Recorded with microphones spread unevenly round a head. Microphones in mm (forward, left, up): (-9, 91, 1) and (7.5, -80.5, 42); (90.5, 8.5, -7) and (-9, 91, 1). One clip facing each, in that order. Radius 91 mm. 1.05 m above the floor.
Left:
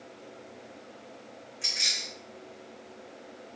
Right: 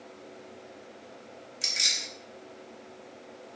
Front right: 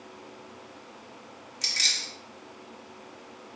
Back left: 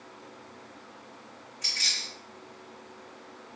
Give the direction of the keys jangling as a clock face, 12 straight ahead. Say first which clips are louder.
Even, front right 2 dB; 1 o'clock.